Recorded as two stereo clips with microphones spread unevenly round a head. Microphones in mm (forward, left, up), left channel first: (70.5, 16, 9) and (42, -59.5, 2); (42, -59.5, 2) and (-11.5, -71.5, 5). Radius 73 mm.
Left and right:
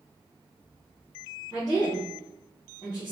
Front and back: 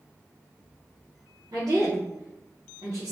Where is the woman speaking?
145° left, 1.0 m.